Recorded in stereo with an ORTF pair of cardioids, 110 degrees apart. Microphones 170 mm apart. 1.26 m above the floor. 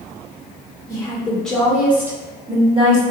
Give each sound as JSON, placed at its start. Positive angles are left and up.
{"t": 0.9, "sound": "a woman speaking", "azimuth_deg": 20, "distance_m": 1.2}